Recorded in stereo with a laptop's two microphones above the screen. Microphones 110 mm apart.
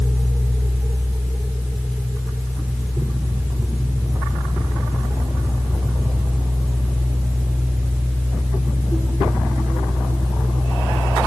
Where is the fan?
10° right (ahead or behind), 1.3 m.